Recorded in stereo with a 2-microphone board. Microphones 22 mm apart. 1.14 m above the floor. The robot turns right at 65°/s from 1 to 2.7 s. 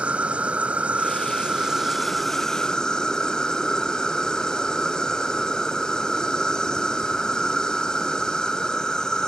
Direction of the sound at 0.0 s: 80° right.